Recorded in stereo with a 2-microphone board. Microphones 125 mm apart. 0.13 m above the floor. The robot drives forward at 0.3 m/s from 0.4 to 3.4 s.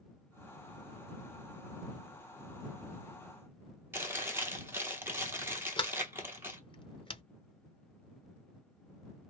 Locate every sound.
3.9 s chewing: 20° right (ahead or behind), 1.0 m
5.8 s a sliding door: 45° left (ahead or behind), 0.7 m